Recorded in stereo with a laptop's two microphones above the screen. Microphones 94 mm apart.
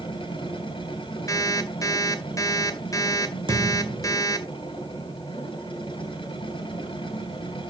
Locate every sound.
0.0 s a machine running: 65° left (ahead or behind), 2.5 m
1.3 s an alarm clock: 35° left (ahead or behind), 1.7 m
3.5 s a thud: 60° right (ahead or behind), 2.5 m